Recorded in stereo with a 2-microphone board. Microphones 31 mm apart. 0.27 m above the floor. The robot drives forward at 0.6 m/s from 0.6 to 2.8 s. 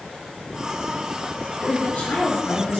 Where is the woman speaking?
70° left (ahead or behind), 4 m; by 2.8 s 65° left (ahead or behind), 4 m.